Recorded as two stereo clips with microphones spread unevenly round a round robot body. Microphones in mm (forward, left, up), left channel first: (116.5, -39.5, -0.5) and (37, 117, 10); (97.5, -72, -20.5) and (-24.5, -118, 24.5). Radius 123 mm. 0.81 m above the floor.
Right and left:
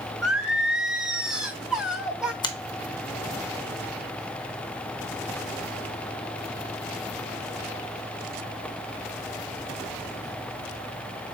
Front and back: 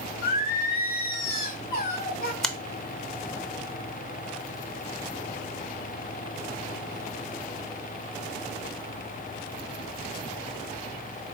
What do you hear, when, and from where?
0.2 s singing: 35° left, 0.8 m
2.4 s a finger snap: 30° right, 0.7 m